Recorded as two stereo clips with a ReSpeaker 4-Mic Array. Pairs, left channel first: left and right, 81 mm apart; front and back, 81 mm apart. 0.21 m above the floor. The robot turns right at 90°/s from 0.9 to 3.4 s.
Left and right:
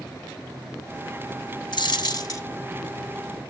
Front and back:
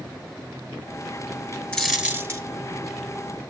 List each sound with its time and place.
1.7 s a dropped coin: 70° left, 1.3 m; by 2.5 s 135° left, 1.3 m